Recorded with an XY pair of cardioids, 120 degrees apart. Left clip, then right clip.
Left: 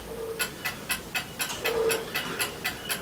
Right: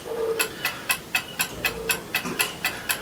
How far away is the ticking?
About 1.6 m.